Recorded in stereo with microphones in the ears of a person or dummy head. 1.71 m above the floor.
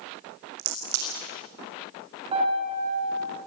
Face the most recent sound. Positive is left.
turn(degrees=-35)  # may be behind; listen again after turning